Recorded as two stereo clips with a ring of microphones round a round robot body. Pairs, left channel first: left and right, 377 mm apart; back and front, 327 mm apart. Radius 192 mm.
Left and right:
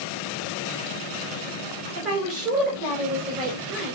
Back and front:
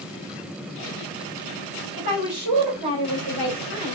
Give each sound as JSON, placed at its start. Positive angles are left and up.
{"t": 1.9, "sound": "a woman speaking", "azimuth_deg": -40, "distance_m": 3.0}